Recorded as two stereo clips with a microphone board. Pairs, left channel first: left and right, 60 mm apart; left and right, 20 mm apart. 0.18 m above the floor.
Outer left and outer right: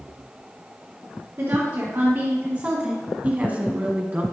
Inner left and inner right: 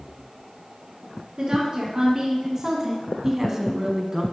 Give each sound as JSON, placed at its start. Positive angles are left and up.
{"t": 1.4, "sound": "a woman speaking", "side_deg": -55, "distance_m": 3.0}
{"t": 3.2, "sound": "a woman speaking", "side_deg": -25, "distance_m": 1.2}